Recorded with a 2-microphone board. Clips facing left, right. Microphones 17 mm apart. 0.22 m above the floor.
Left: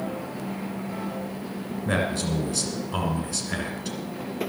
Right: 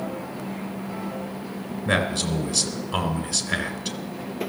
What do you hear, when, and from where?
1.9 s a man speaking: 20° right (ahead or behind), 2 m